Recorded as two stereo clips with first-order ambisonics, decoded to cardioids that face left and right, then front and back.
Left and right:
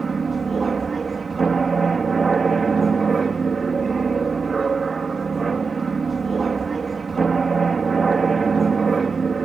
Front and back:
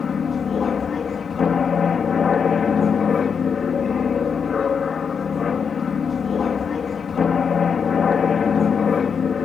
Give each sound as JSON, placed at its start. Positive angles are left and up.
{"t": 0.0, "sound": "an aircraft", "azimuth_deg": -35}